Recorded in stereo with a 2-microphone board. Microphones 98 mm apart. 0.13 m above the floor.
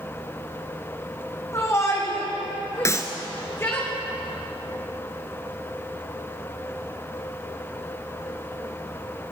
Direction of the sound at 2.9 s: 30° left (ahead or behind).